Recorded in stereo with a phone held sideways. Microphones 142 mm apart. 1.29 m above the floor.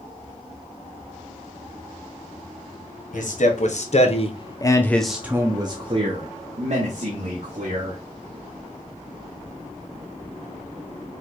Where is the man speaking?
65° left (ahead or behind), 1.3 m; by 8.0 s 65° right (ahead or behind), 2.0 m.